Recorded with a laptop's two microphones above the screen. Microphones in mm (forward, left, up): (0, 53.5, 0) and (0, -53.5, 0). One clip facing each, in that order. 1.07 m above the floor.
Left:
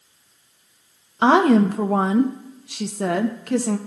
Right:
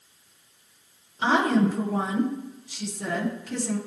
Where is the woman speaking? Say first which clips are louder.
Left 7 dB; 65° left (ahead or behind), 0.8 m.